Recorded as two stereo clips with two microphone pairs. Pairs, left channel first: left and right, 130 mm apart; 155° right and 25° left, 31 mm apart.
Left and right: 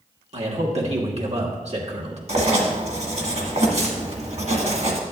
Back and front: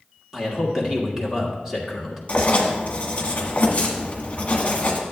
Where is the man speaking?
55° right, 1.5 m.